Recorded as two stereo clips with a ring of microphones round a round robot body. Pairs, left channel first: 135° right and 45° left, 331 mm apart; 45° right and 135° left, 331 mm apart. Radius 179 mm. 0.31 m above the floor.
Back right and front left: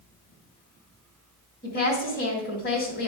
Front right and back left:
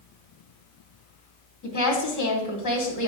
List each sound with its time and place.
1.6 s a woman speaking: 75° right, 2.5 m